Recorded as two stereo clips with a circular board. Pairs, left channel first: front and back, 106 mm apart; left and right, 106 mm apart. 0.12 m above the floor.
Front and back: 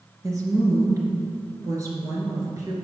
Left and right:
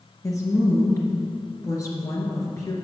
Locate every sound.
0.2 s a woman speaking: 135° left, 2 m